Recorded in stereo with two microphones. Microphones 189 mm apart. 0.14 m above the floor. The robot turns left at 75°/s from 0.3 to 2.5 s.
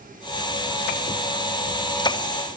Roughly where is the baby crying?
No baby crying in this recording.